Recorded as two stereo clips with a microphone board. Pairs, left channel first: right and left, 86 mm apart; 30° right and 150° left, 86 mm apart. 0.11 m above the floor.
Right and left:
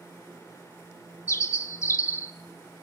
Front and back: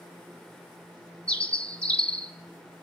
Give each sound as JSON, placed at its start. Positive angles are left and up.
{"t": 1.3, "sound": "a bird", "azimuth_deg": -95, "distance_m": 1.1}